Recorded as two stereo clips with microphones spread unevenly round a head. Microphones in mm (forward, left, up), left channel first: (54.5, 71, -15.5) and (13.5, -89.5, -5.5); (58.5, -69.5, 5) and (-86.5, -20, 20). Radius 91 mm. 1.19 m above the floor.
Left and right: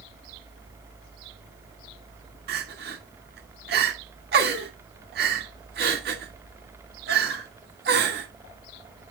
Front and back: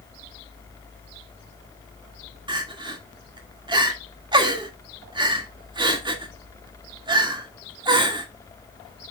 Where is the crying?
140° right, 1.8 m.